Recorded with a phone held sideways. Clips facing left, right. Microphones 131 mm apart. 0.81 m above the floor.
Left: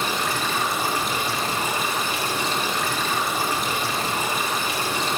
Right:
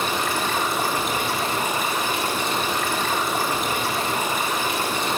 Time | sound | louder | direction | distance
0.0 | running water | right 1 dB | 55° right (ahead or behind) | 1.0 m